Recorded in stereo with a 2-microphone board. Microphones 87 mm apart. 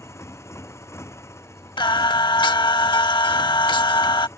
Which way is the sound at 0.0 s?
30° left (ahead or behind).